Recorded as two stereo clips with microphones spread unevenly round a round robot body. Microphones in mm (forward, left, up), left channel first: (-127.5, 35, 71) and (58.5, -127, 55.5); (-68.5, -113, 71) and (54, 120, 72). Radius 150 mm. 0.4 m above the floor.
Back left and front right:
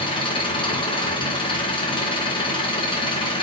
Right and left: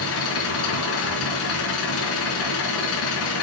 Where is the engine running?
150° right, 4 m.